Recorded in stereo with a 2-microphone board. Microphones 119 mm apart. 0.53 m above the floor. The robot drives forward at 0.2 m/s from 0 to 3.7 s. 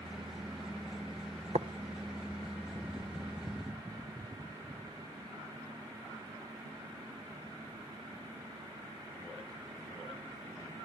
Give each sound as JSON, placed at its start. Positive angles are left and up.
{"t": 1.5, "sound": "tapping", "side_deg": -65, "distance_m": 0.6}